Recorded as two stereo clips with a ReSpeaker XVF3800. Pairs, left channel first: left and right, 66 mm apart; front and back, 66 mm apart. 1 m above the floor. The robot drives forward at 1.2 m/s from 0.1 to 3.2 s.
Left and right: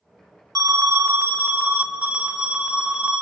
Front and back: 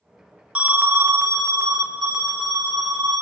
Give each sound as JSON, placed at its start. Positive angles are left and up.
{"t": 0.6, "sound": "an alarm", "azimuth_deg": -110, "distance_m": 1.1}